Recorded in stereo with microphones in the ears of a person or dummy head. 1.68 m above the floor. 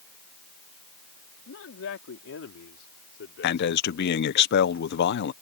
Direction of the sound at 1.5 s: 80° left.